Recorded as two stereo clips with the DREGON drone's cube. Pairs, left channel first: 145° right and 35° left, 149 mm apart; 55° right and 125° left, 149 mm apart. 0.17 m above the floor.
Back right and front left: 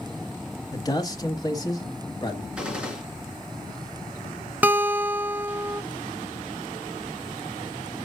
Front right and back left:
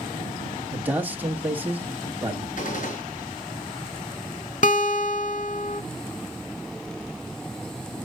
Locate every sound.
0.7 s a man speaking: 170° right, 1.1 m
2.6 s a gunshot: 50° right, 2.5 m
4.6 s a guitar: 40° right, 0.6 m